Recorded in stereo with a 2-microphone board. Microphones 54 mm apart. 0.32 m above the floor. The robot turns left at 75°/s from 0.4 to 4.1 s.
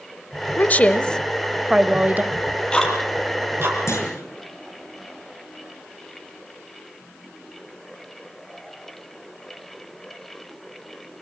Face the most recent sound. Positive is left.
turn(degrees=75)  # may be behind; listen again after turning